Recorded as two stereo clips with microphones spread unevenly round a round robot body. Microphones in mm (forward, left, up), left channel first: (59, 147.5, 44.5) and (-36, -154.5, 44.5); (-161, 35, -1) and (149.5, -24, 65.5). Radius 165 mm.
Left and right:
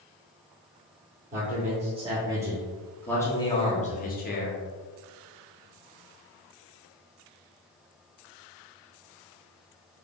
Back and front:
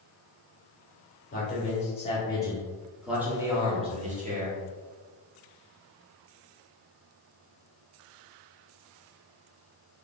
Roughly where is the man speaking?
Behind.